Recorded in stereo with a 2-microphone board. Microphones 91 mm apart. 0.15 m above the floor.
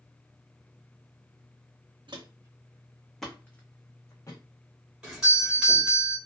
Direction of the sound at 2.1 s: 60° right (ahead or behind).